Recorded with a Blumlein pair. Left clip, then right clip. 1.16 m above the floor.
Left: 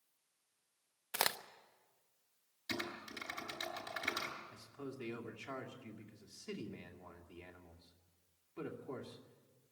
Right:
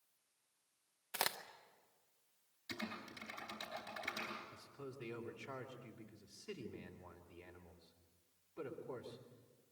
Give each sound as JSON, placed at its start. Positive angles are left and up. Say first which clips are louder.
{"t": 1.1, "sound": "a crack", "louder": "left 4 dB", "azimuth_deg": 15, "distance_m": 0.6}
{"t": 2.7, "sound": "typing on a keyboard", "louder": "left 5 dB", "azimuth_deg": 25, "distance_m": 6.0}
{"t": 4.5, "sound": "a man speaking", "louder": "left 3 dB", "azimuth_deg": 25, "distance_m": 2.5}